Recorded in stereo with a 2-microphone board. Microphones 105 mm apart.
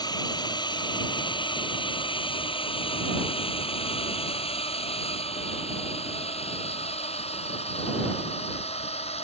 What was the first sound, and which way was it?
A drone, 40° left (ahead or behind).